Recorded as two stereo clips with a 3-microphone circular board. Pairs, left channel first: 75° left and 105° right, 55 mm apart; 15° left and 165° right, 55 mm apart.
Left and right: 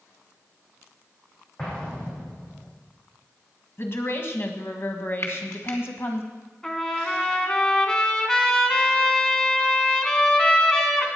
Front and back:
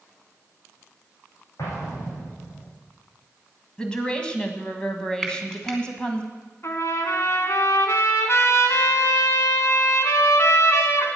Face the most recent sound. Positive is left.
turn(degrees=0)